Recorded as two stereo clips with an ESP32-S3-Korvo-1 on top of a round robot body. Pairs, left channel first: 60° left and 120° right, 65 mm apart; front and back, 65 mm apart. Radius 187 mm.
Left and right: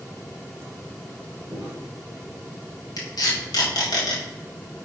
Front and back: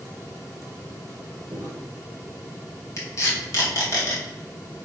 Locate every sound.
1.5 s footsteps: 160° left, 1.5 m
3.0 s tape being pulled: 40° left, 2 m